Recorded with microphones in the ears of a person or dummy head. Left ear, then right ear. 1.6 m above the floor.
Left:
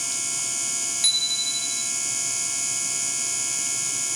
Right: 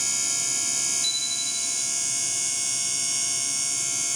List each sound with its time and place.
1.0 s a bicycle bell: 35° left (ahead or behind)